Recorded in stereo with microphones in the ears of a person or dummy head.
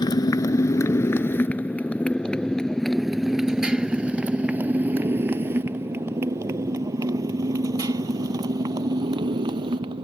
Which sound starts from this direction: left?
A motorcycle, at 0.0 s.